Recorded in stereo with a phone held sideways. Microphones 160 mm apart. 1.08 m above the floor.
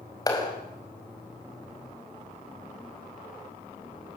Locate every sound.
0.3 s a clap: 25° left (ahead or behind), 5 m